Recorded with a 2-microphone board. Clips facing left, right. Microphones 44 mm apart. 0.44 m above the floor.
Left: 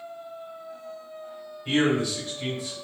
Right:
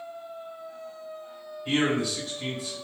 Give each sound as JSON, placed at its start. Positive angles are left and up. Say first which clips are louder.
{"t": 1.6, "sound": "a man speaking", "louder": "left 2 dB", "side_deg": 0, "distance_m": 1.9}